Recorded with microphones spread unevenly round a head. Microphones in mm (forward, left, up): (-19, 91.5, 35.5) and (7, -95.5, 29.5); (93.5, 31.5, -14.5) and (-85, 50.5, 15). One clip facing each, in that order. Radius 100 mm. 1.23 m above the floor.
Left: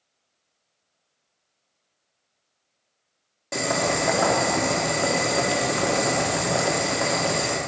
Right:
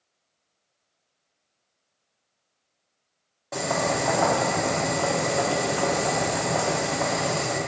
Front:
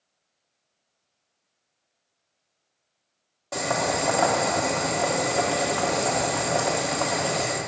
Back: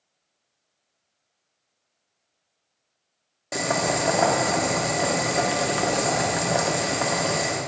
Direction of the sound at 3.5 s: 140° left.